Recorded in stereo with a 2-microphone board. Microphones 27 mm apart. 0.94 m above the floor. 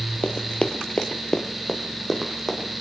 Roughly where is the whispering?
I don't hear whispering.